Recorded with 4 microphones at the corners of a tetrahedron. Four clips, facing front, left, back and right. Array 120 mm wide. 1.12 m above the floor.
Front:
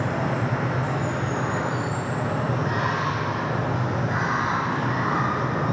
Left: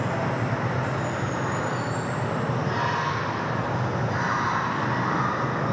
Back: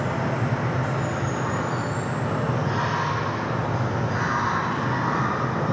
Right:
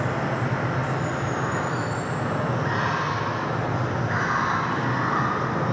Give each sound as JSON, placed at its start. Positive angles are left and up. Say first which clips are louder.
{"t": 0.0, "sound": "running water", "louder": "right 1 dB, even", "azimuth_deg": -75, "distance_m": 4.5}